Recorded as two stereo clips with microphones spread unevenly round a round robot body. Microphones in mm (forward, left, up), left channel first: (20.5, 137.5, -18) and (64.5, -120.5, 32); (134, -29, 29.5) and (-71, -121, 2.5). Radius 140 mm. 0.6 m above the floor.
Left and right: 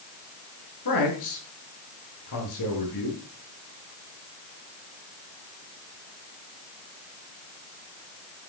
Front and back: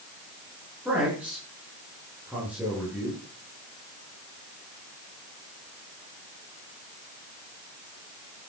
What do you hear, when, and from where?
0.8 s a man speaking: 120° left, 10 m